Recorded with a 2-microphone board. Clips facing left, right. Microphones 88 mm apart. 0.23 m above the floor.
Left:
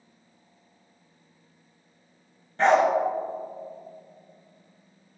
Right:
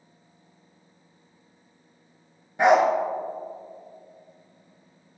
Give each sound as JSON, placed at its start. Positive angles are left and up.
{"t": 2.6, "sound": "a dog barking", "side_deg": -10, "distance_m": 1.0}